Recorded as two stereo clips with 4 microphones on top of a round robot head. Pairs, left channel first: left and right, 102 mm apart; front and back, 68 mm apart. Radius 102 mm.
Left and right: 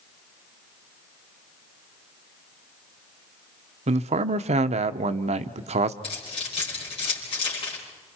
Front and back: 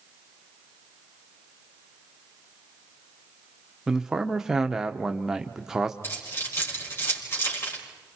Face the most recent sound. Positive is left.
turn(degrees=50)